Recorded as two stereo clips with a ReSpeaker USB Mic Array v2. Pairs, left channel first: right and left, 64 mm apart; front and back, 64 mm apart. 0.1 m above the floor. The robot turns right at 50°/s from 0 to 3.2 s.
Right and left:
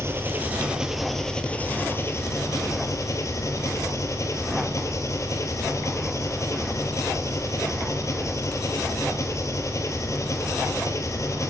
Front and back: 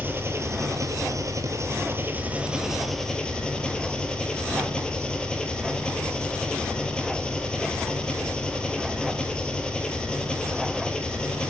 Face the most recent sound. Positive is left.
turn(degrees=-75)